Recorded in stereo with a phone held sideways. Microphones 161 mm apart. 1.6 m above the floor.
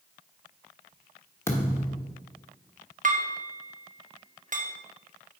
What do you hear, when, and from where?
1.5 s a thud: 15° left (ahead or behind), 1.2 m
3.0 s dishes clattering: 55° right (ahead or behind), 1.0 m